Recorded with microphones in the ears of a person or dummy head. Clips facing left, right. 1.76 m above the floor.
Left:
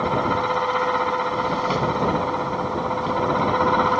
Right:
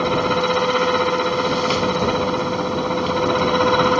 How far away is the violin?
I don't hear a violin.